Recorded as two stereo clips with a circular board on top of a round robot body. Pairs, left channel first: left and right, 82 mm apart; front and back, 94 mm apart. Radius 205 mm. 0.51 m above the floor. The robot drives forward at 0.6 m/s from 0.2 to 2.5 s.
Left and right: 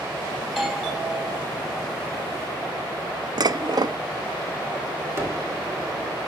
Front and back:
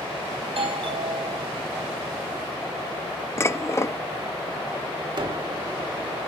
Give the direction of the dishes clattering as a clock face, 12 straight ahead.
2 o'clock.